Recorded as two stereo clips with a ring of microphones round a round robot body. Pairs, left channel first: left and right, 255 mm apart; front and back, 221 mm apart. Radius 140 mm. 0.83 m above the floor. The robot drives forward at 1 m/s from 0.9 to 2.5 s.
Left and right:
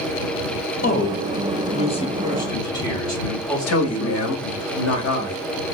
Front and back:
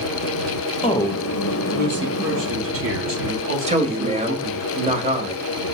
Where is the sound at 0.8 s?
55° left, 0.7 m; by 4.7 s 165° left, 1.5 m.